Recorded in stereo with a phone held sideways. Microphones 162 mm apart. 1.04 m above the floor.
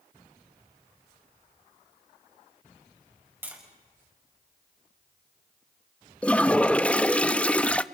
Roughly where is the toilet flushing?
Centre.